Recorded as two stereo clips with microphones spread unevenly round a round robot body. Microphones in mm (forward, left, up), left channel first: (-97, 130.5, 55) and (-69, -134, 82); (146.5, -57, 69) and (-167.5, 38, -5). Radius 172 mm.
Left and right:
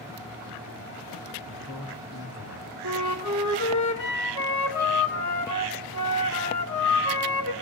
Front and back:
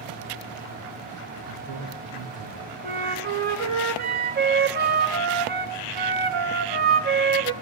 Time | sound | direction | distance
1.5 | a man speaking | 105° left | 7 m
2.8 | a flute | 100° left | 3.5 m